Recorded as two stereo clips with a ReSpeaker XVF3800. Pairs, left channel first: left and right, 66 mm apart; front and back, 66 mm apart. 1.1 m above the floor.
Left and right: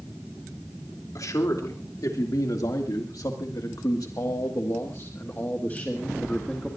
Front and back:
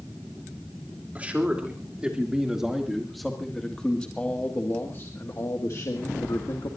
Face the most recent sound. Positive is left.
turn(degrees=10)